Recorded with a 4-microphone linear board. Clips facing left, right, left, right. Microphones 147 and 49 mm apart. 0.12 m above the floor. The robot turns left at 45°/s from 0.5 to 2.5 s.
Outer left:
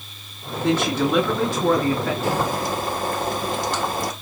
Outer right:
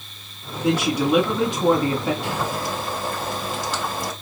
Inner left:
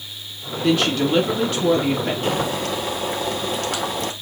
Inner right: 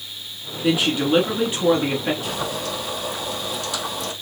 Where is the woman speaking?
10° right (ahead or behind), 1.1 m; by 2.1 s 20° right (ahead or behind), 1.1 m.